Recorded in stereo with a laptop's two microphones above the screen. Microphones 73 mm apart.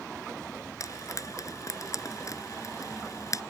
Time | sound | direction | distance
0.8 | frying | 50° left (ahead or behind) | ?